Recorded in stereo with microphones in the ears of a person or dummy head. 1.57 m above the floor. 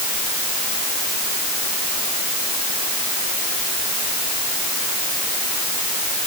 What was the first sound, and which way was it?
Only background noise.